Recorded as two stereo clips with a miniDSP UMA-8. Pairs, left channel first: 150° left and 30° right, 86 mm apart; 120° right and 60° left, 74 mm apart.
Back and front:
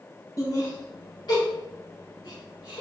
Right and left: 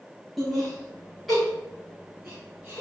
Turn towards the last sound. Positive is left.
turn(degrees=150)